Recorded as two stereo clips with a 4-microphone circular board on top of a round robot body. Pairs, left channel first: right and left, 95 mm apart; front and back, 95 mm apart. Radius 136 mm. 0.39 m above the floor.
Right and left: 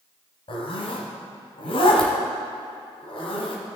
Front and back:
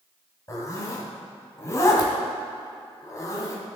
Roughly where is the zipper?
Ahead right.